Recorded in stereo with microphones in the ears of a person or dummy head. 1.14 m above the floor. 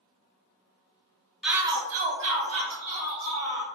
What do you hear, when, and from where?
1.4 s a shout: centre (ahead or behind), 0.6 m; by 3.6 s 70° right (ahead or behind), 1.8 m